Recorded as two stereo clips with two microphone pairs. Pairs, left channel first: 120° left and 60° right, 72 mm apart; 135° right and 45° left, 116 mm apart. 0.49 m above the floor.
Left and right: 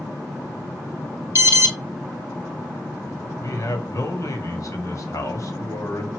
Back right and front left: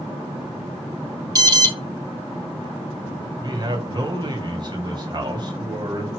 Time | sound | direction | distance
1.4 | an alarm | 10° right | 1.3 m
3.4 | a man speaking | 90° left | 1.9 m